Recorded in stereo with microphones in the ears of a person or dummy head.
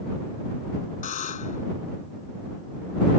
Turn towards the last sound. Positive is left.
turn(degrees=40)  # may be behind; listen again after turning